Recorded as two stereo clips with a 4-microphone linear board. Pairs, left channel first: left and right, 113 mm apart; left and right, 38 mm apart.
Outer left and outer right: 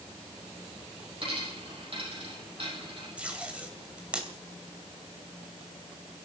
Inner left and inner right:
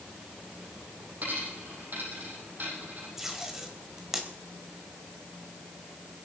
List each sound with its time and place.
1.2 s a dropped coin: 50° right (ahead or behind), 7.5 m
3.2 s tape being pulled: 10° right (ahead or behind), 2.5 m